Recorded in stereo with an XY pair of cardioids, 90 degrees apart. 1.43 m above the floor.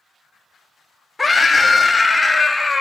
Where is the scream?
15° left, 1.8 m.